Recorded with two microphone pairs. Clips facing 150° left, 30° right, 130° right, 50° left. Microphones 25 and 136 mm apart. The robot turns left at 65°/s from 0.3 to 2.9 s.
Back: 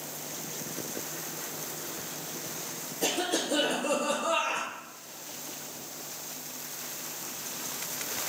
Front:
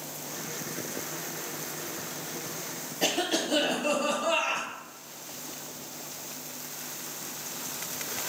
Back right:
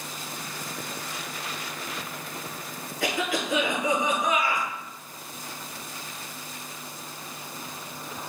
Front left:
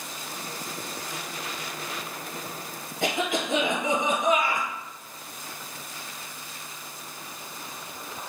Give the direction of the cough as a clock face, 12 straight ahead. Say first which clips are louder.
Front 2 dB, front left 1 dB; 12 o'clock.